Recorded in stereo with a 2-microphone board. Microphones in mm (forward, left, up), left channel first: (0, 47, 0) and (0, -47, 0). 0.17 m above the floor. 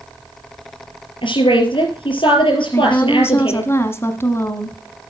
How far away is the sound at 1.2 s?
About 4.5 m.